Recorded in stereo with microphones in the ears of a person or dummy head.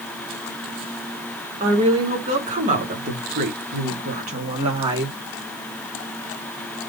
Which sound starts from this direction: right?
A woman speaking, at 1.6 s.